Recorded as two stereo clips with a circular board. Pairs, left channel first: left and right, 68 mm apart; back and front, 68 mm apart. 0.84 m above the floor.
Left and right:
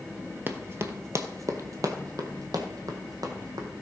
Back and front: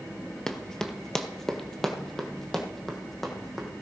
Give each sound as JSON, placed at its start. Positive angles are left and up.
{"t": 0.5, "sound": "running footsteps", "azimuth_deg": -105, "distance_m": 0.9}